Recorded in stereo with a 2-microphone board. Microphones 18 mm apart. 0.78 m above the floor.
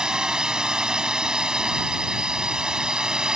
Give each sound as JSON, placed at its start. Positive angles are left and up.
{"t": 0.0, "sound": "a drone", "side_deg": -50}